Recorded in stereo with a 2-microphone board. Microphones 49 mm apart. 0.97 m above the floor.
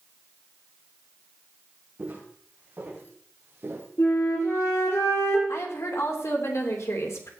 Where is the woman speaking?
70° left (ahead or behind), 3 m.